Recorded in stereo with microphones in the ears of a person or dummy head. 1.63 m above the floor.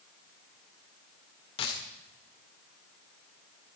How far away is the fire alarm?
I don't hear a fire alarm.